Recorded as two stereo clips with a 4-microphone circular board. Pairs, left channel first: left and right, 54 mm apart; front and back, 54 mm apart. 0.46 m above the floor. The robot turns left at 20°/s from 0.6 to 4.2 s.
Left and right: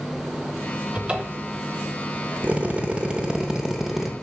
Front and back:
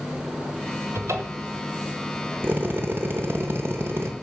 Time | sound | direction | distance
0.9 | a cupboard door | 155° right | 0.9 m
2.4 | a drill | 145° right | 0.8 m